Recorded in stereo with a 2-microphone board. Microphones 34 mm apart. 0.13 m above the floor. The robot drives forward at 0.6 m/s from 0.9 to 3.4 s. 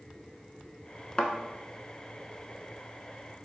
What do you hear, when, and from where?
1.2 s a thud: 30° left (ahead or behind), 0.5 m